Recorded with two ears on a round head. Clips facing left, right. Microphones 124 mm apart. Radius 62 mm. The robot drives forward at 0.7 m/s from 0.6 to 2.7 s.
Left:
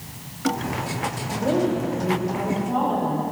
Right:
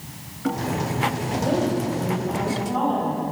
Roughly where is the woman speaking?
Centre.